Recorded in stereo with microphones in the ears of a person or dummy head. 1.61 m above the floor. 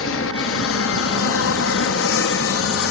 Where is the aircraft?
70° left (ahead or behind); by 2.9 s 65° left (ahead or behind).